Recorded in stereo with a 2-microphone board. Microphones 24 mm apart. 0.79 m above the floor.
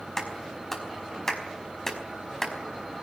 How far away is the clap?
About 4.5 m.